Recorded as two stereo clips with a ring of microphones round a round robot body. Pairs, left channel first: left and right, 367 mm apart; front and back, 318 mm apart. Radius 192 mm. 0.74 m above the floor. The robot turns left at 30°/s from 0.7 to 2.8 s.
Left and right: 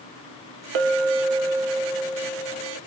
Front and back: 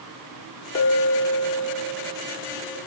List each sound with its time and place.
0.8 s a clink: 70° right, 0.8 m; by 2.8 s 130° right, 0.8 m